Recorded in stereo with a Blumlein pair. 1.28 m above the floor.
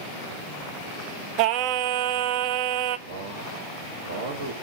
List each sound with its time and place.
1.4 s singing: 40° right, 0.5 m
3.1 s a man speaking: 60° right, 1.4 m